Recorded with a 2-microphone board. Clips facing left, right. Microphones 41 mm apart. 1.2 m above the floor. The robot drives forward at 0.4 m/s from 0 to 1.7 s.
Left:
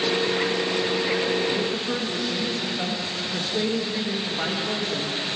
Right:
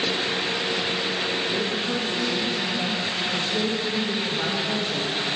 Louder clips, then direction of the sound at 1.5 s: Even; 15° left (ahead or behind).